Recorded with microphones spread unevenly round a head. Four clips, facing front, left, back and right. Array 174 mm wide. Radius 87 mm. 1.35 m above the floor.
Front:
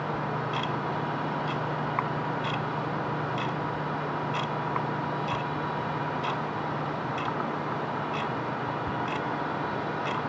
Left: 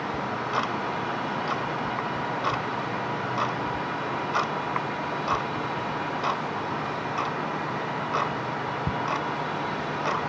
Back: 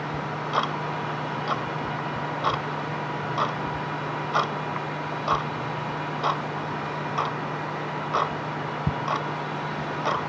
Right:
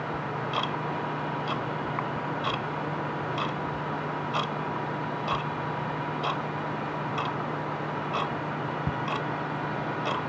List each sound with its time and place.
0.1 s ticking: 170° left